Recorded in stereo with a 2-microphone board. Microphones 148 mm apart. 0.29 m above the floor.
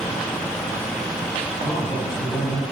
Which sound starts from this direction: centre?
A man speaking, at 1.6 s.